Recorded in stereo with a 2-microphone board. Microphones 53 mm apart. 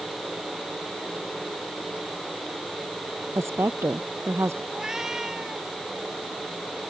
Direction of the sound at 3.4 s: 55° right (ahead or behind).